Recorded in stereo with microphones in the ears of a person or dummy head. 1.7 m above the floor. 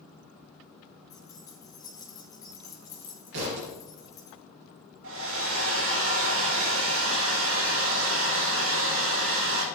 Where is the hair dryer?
80° right, 3 m.